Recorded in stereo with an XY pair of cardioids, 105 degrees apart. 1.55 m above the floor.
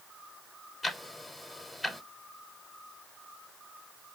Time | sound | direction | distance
0.8 | ticking | 15° left | 0.9 m